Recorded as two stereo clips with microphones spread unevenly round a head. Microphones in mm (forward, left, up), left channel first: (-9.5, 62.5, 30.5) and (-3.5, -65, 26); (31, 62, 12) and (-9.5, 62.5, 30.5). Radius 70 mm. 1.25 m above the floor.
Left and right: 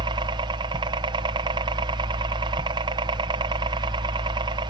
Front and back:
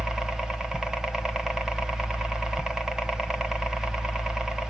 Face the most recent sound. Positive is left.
turn(degrees=-75)